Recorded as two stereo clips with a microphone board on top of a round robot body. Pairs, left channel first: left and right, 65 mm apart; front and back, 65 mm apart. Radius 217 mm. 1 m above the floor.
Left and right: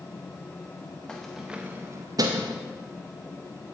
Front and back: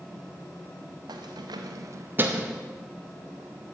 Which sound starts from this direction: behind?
Keys jangling, at 1.1 s.